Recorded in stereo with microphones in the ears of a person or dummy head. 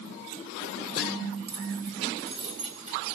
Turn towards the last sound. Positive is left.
turn(degrees=-35)  # may be behind; listen again after turning